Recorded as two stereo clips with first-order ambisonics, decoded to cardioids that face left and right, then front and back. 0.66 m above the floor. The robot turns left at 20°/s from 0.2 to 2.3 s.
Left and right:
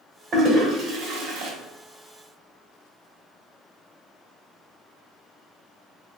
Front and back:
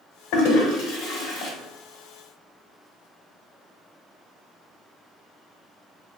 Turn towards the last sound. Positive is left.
turn(degrees=-65)